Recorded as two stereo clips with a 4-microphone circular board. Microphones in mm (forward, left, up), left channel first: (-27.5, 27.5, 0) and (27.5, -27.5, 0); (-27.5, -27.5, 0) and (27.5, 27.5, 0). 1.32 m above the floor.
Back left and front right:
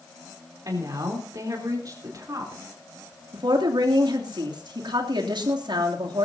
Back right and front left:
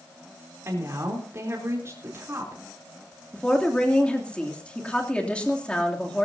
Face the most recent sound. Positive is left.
turn(degrees=-60)